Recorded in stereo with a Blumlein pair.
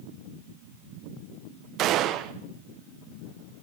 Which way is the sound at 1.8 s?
35° right.